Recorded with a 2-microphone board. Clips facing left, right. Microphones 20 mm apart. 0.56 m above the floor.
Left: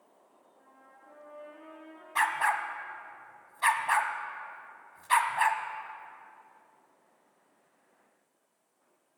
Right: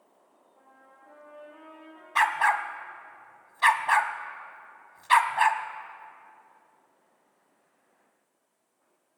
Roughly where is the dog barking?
Right.